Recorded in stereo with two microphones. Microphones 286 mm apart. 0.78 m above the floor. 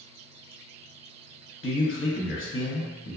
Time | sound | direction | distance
1.6 | a man speaking | 45° left (ahead or behind) | 0.6 m